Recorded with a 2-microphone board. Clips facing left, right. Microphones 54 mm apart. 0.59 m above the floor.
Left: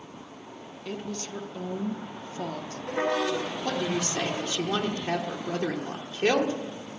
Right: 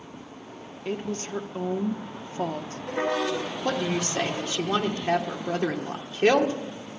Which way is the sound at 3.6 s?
25° right (ahead or behind).